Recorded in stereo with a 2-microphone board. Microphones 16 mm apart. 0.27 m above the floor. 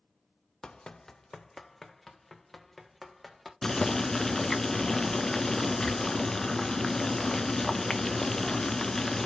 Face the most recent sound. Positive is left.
turn(degrees=25)  # may be behind; listen again after turning